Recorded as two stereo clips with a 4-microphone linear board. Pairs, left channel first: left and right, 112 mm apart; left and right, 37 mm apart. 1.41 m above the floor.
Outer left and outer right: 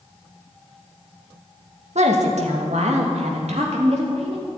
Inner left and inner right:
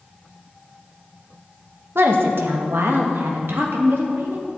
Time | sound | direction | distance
1.9 | a woman speaking | 80° right | 1.8 m